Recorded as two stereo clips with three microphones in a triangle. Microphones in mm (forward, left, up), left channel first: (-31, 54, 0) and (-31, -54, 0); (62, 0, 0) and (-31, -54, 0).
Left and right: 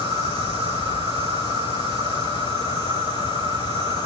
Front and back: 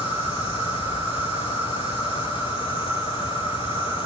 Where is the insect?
85° right, 3.5 m.